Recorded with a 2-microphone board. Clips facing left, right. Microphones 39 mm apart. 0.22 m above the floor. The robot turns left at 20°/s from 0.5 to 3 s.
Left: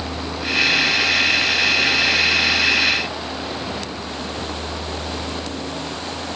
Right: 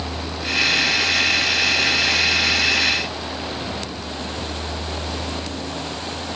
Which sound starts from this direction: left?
A vehicle, at 0.0 s.